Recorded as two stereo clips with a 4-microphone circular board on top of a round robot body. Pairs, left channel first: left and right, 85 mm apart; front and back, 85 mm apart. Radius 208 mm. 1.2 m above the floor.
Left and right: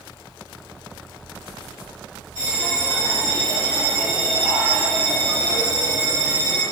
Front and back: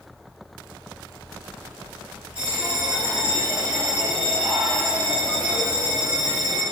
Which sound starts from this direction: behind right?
A bell, at 2.4 s.